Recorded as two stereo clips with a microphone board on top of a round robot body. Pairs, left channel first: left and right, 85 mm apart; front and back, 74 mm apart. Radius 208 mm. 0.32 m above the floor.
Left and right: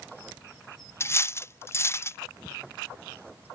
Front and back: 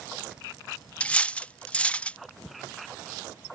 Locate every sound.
1.0 s cutlery clinking: 60° left